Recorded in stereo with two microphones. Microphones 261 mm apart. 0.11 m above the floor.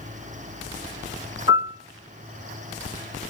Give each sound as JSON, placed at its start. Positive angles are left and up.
{"t": 1.5, "sound": "a piano", "side_deg": -25, "distance_m": 2.0}